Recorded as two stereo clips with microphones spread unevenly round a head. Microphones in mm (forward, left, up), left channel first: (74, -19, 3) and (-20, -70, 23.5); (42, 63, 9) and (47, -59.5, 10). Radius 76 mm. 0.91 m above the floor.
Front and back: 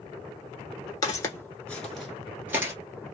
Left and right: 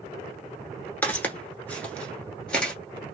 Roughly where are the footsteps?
Ahead left.